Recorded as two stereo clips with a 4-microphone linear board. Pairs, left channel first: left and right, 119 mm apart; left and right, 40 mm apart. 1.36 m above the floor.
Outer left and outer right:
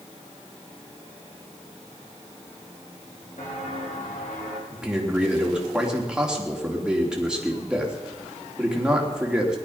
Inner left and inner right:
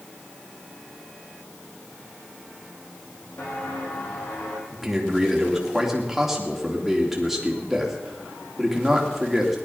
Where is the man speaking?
5° right (ahead or behind), 3 m.